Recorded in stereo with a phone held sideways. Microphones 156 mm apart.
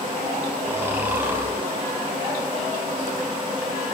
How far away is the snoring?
About 6.5 m.